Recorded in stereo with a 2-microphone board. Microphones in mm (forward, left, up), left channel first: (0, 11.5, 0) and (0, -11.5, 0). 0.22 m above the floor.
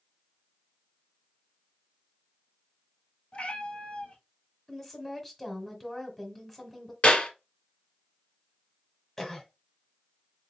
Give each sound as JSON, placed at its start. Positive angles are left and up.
{"t": 3.3, "sound": "a cat meowing", "side_deg": 55, "distance_m": 1.5}
{"t": 4.7, "sound": "a woman speaking", "side_deg": 10, "distance_m": 1.2}
{"t": 7.0, "sound": "a clap", "side_deg": 60, "distance_m": 1.8}
{"t": 9.2, "sound": "a cough", "side_deg": 15, "distance_m": 1.0}